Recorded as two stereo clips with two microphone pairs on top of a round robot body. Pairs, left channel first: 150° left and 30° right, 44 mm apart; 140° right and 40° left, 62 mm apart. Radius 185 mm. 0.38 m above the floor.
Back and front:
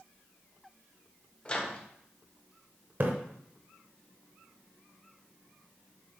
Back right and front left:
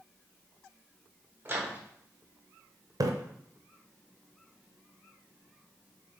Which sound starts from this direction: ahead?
A splash, at 3.0 s.